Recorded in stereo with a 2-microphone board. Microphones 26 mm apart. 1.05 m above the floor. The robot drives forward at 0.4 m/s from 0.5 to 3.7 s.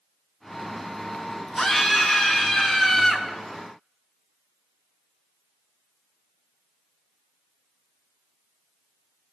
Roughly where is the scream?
Centre.